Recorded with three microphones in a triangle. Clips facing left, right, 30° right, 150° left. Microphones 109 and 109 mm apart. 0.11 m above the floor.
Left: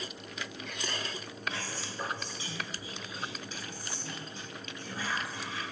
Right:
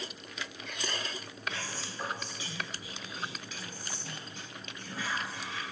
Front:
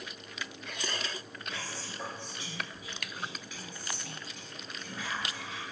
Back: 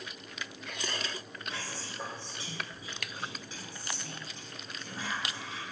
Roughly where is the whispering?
Behind left.